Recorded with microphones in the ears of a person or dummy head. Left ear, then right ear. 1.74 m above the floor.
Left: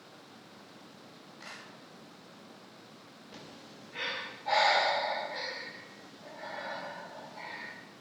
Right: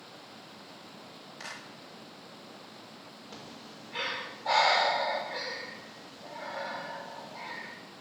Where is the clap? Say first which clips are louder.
Right 4 dB; 70° right (ahead or behind), 3.5 m.